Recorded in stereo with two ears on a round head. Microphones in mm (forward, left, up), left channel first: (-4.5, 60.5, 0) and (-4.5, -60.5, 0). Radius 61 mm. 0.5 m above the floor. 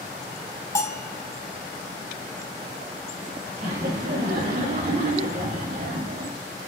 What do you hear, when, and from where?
0.8 s a bell: 20° left (ahead or behind), 1.7 m
3.6 s laughter: 65° right (ahead or behind), 2.5 m